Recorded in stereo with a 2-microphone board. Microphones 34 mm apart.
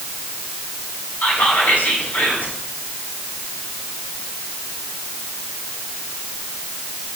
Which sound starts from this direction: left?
Whispering, at 1.2 s.